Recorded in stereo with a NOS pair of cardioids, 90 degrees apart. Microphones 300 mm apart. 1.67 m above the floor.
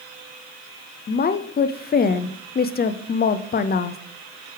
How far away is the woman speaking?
About 0.6 m.